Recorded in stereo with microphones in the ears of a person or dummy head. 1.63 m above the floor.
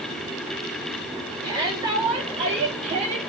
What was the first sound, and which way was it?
A shout, 30° right (ahead or behind).